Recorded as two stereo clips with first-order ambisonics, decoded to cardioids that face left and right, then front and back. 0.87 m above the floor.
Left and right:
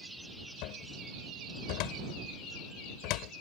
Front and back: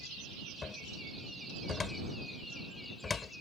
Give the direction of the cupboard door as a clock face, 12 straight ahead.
10 o'clock.